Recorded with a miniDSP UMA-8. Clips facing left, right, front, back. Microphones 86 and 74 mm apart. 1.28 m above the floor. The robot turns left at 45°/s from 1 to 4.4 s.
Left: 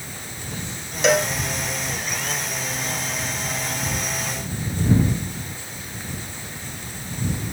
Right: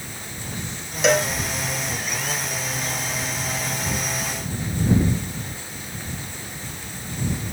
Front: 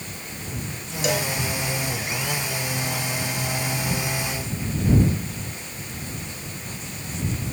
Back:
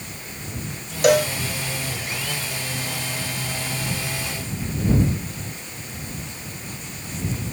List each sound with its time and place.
1.0 s a cowbell: straight behind; by 1.3 s 170° left